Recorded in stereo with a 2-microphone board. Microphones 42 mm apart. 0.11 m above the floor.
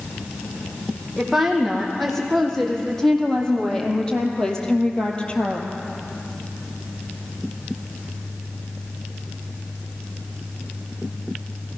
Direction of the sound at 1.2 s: 5° left (ahead or behind).